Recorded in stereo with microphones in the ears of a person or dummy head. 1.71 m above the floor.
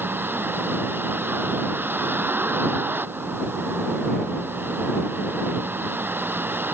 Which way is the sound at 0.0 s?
10° right (ahead or behind).